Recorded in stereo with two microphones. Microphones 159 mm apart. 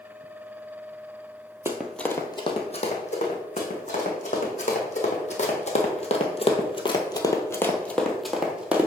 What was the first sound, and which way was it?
Running footsteps, 15° right (ahead or behind).